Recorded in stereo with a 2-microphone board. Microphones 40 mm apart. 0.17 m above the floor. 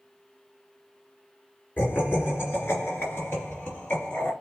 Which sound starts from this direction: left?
Laughter, at 1.8 s.